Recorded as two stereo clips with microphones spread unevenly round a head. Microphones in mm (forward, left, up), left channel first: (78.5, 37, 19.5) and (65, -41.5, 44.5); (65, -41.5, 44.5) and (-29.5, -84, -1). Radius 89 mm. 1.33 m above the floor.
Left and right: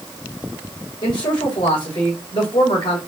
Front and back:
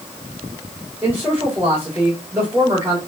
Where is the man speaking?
125° left, 3 m.